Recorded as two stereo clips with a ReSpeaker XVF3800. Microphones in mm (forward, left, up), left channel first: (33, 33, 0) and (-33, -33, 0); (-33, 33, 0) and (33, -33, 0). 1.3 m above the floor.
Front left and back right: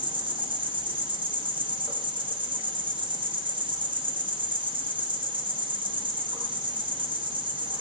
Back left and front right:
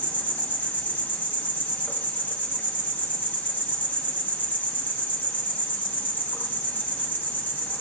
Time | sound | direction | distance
0.0 | an insect | 155° right | 0.9 m